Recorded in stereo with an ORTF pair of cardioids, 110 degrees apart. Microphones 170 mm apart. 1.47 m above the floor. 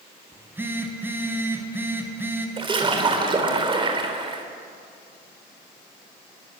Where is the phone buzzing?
15° right, 3.5 m.